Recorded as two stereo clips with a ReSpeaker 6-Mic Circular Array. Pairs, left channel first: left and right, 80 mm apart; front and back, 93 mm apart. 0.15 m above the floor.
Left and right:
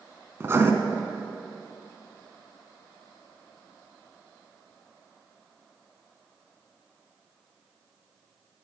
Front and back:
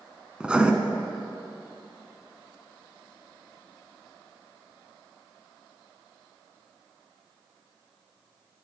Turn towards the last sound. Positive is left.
turn(degrees=-110)